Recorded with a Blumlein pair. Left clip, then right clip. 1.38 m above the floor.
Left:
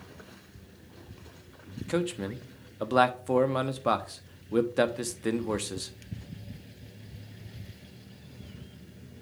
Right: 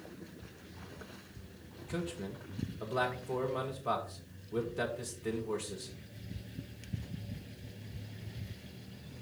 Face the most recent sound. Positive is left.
turn(degrees=60)